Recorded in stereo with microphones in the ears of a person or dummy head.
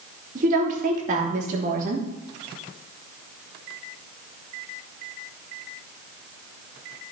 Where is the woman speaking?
40° right (ahead or behind), 2.5 m.